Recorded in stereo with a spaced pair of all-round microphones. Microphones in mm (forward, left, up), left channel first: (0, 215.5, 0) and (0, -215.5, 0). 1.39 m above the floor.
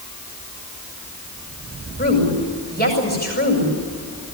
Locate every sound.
2.0 s a woman speaking: 20° left (ahead or behind), 7 m